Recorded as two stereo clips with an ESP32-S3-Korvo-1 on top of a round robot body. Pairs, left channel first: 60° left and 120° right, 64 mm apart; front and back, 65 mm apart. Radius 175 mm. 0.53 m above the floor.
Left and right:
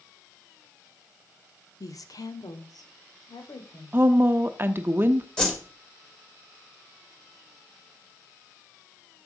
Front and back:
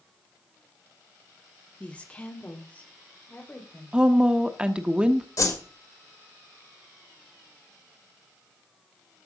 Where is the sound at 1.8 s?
70° left, 1.7 m; by 4.0 s 65° left, 3.5 m.